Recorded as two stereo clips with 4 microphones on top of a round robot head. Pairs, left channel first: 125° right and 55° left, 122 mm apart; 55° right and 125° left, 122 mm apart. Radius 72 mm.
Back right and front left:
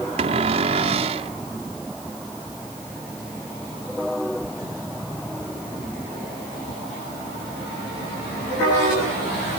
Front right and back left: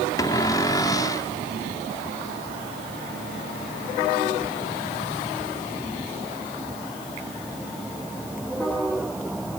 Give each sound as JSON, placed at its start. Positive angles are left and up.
{"t": 0.2, "sound": "a cupboard door", "azimuth_deg": 10}